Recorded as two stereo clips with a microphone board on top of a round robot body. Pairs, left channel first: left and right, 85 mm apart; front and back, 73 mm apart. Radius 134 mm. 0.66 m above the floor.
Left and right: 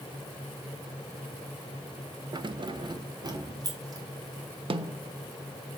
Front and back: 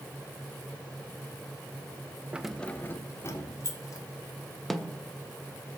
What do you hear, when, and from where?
2.3 s keys jangling: 110° right, 0.6 m; by 4.0 s 45° right, 2.5 m
4.7 s a snare drum: 90° right, 0.7 m